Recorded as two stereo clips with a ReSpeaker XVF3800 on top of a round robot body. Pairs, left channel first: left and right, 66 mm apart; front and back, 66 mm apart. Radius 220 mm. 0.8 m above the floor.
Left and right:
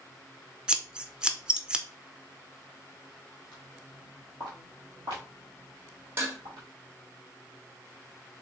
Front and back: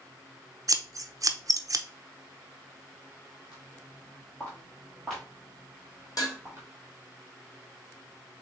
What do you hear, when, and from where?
0.7 s scissors: 165° right, 0.7 m
3.5 s footsteps: 20° right, 1.2 m; by 6.7 s 120° right, 1.7 m
6.2 s dishes clattering: 35° right, 1.2 m